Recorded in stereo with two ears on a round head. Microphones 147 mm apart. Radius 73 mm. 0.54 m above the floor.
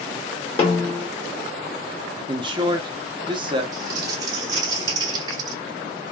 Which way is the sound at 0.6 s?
35° left (ahead or behind).